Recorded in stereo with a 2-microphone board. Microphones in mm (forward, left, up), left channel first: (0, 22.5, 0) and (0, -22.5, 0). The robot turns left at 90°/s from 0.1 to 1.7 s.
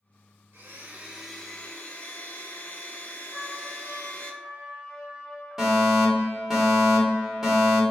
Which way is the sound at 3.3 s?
5° right (ahead or behind).